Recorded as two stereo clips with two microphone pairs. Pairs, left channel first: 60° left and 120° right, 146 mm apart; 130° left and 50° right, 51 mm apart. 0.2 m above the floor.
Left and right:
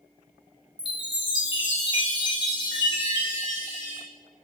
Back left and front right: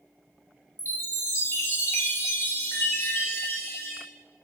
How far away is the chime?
About 2 m.